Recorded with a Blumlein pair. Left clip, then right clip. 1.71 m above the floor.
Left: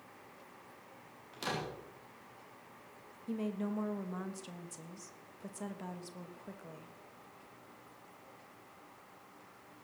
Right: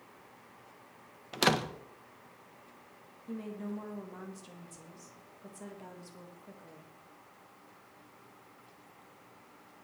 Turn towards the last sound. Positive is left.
turn(degrees=15)